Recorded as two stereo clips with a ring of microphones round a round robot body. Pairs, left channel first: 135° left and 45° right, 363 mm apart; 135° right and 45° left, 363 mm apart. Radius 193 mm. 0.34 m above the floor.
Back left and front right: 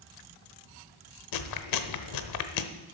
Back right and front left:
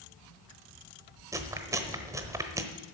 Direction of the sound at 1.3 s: 125° left.